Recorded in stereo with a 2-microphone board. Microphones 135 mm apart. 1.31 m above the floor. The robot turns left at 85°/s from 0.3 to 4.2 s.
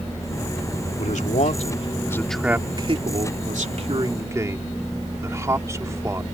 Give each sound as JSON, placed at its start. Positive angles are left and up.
{"t": 1.0, "sound": "a man speaking", "side_deg": 65}